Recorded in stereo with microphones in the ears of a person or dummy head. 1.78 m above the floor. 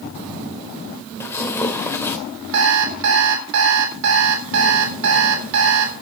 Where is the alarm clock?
55° right (ahead or behind), 3.5 m.